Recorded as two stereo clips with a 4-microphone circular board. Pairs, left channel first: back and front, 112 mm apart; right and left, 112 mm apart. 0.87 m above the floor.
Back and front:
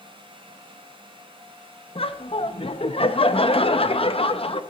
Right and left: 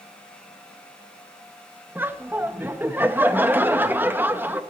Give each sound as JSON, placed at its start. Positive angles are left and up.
{"t": 1.9, "sound": "laughter", "azimuth_deg": 160, "distance_m": 0.6}